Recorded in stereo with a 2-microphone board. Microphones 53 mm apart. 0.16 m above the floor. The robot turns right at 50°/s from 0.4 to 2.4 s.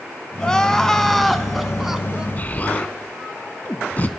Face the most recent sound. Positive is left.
turn(degrees=35)  # may be behind; listen again after turning